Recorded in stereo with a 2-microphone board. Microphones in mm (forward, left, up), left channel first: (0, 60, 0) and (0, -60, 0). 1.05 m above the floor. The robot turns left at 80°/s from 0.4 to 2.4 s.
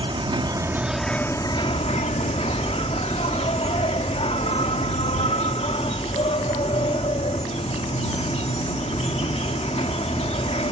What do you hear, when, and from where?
0.0 s an insect: 130° right; by 10.7 s 70° left